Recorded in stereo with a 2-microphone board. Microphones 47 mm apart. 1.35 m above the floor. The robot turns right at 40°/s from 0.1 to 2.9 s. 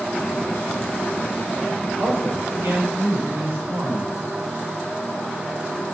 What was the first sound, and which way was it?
A man speaking, 105° right.